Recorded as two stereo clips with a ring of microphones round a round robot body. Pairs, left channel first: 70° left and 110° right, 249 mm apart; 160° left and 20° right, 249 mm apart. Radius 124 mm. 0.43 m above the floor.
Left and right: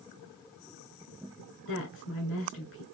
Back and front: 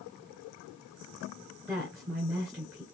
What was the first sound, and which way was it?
A woman speaking, 65° left.